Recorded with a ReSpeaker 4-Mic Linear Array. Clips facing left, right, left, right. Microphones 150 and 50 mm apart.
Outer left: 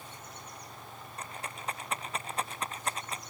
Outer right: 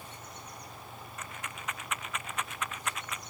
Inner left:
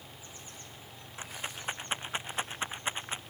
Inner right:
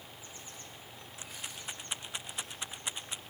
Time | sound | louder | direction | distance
1.2 | a rattle | outer left 3 dB, inner left 6 dB | 35° left (ahead or behind) | ?